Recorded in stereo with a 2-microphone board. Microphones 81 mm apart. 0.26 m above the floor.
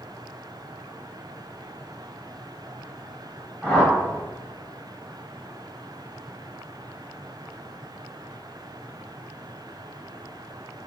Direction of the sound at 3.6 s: 10° left (ahead or behind).